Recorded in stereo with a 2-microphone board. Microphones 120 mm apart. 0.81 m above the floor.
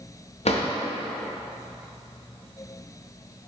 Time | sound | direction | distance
0.5 | a drawer | 65° left (ahead or behind) | 0.5 m